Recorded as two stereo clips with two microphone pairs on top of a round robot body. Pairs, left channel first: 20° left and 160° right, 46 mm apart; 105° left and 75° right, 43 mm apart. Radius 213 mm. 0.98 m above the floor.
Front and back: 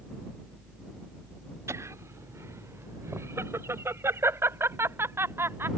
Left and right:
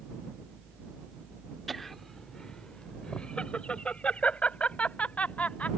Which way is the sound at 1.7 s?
165° right.